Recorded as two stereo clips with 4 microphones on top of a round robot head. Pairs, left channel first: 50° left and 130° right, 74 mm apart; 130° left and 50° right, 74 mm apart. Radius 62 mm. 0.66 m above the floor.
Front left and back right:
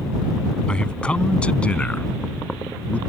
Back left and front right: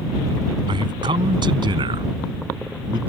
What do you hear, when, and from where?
0.7 s a man speaking: 30° right; by 3.0 s 25° right